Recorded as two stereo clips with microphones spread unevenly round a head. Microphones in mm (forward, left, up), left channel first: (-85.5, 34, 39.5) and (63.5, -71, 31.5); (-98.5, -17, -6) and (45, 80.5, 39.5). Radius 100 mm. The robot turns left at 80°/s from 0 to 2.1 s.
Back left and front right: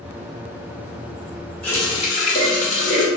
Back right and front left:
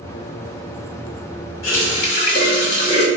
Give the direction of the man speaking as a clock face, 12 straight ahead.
I don't hear a man speaking.